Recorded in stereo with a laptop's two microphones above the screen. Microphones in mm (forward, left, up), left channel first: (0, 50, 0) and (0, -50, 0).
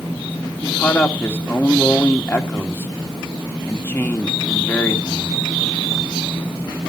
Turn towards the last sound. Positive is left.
turn(degrees=20)  # may be behind; listen again after turning